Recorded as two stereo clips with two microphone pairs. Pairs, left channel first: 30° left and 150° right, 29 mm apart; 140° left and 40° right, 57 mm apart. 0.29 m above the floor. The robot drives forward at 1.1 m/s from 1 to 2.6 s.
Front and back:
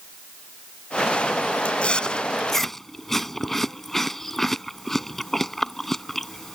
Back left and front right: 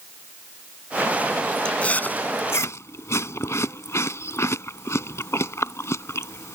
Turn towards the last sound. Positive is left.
turn(degrees=110)